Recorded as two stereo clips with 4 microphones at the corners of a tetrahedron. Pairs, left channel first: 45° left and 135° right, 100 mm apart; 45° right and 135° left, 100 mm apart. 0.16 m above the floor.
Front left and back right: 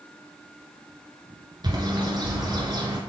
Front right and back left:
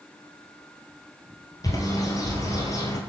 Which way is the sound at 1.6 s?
95° right.